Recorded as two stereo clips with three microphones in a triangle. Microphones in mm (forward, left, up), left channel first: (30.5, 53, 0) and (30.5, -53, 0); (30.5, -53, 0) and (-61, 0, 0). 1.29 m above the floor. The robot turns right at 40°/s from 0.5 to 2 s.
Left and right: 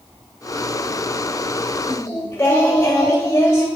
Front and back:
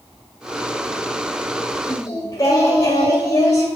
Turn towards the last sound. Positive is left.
turn(degrees=20)